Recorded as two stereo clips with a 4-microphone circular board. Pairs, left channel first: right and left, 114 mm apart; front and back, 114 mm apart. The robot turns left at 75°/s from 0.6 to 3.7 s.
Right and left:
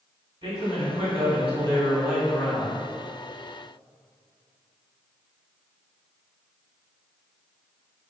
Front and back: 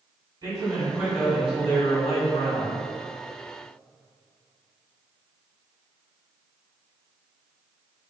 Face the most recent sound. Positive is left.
turn(degrees=-105)